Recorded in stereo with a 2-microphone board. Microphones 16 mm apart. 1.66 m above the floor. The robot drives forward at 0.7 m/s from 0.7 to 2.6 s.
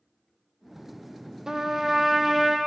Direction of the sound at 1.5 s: 35° right (ahead or behind).